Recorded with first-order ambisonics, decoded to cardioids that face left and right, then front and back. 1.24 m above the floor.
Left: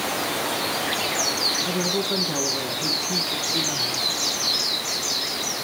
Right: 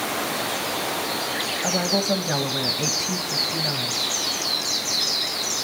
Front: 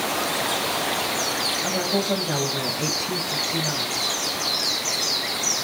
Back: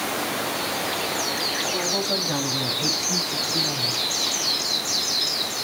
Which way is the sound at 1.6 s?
80° right.